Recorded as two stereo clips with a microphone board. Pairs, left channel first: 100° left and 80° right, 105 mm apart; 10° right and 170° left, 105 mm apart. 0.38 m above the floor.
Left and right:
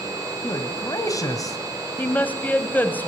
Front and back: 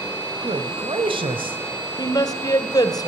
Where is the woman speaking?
30° left, 2 m.